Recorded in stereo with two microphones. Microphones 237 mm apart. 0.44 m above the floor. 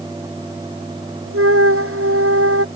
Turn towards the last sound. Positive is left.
turn(degrees=-65)  # may be behind; listen again after turning